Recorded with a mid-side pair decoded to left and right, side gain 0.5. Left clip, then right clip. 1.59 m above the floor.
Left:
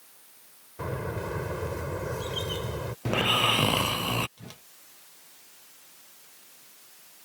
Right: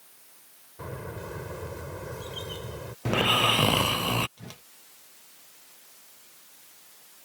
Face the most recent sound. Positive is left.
turn(degrees=-10)